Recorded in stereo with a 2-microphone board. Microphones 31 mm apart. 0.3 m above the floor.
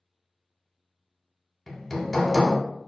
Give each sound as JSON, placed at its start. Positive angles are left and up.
{"t": 1.7, "sound": "hammering", "side_deg": 10, "distance_m": 0.7}